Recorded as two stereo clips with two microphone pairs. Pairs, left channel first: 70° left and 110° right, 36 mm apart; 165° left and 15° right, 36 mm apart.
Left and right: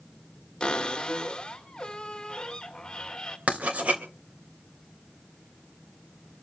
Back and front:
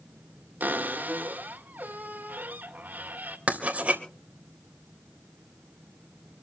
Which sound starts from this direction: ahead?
A cupboard door, at 0.6 s.